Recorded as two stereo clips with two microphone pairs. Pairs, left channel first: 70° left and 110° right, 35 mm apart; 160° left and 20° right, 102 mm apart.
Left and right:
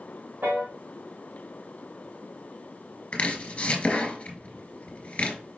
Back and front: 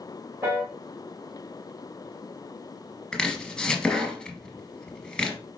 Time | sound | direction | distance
0.4 | a piano | 90° right | 2.5 m
3.1 | chopping | 85° left | 1.2 m